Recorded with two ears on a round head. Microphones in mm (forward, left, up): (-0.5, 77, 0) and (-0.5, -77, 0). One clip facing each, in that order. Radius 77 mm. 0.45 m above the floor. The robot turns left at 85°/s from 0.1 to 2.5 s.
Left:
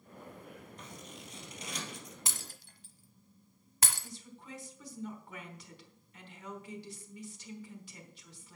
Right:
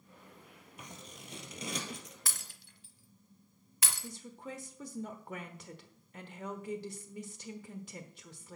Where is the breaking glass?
20° left (ahead or behind), 1.0 m; by 4.1 s 40° left (ahead or behind), 1.0 m.